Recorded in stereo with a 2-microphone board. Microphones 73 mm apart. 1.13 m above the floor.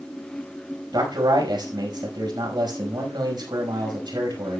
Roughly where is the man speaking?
Right.